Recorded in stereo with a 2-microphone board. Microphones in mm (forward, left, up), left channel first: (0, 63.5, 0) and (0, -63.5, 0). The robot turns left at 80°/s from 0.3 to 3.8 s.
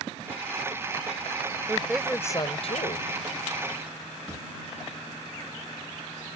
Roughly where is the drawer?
Right.